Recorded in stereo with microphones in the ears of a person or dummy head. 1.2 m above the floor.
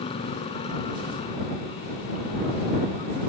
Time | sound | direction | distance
0.0 | a motorcycle | 25° left (ahead or behind) | ?